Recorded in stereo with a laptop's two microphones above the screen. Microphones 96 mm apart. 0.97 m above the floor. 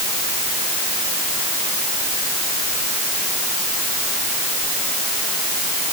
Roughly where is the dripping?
I don't hear dripping.